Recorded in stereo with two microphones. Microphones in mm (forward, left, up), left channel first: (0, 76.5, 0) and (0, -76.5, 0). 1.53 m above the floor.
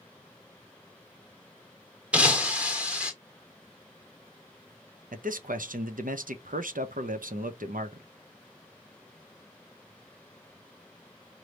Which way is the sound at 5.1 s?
60° right (ahead or behind).